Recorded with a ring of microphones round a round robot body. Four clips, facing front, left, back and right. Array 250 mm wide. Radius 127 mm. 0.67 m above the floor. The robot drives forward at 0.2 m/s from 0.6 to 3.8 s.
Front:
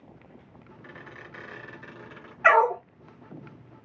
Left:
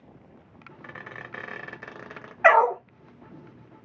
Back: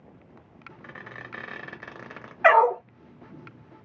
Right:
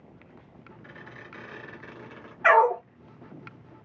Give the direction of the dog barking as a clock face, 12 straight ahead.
8 o'clock.